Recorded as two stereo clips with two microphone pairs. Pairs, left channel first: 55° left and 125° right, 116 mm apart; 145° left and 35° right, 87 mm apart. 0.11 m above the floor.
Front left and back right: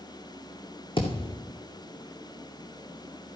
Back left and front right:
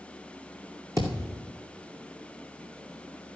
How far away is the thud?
About 2.5 m.